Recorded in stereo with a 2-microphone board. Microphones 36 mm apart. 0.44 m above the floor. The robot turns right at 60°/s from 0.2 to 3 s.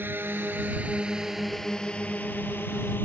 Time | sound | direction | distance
0.0 | a drone | 80° right | ?